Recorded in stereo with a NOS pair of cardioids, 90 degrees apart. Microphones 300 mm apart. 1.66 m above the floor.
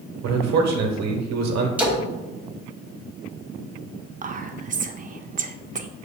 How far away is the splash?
About 1.7 m.